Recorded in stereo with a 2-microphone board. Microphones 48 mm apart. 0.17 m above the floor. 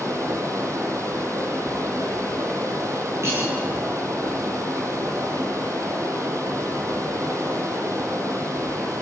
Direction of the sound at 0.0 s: 75° right (ahead or behind).